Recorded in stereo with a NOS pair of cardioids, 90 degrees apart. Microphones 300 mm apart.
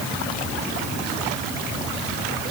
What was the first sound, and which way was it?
Only background noise.